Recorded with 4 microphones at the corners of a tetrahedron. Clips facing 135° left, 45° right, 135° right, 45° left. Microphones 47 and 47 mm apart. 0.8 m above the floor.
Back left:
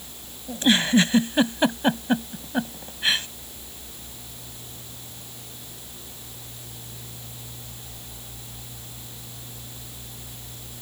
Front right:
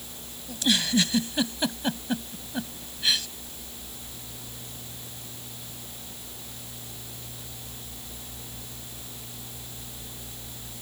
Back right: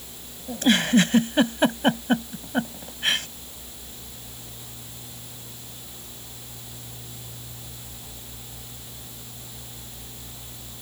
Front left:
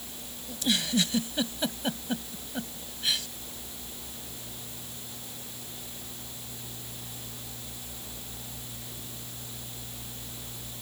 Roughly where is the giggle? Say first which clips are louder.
Back left 5 dB, back right 9 dB; behind.